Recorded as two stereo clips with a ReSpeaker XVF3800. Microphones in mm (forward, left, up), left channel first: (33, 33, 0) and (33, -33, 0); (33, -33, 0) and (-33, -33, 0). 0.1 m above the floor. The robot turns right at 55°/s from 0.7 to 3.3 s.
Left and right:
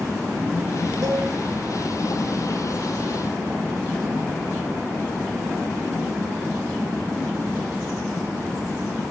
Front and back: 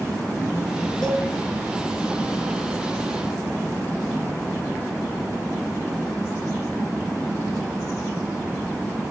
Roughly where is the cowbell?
Right.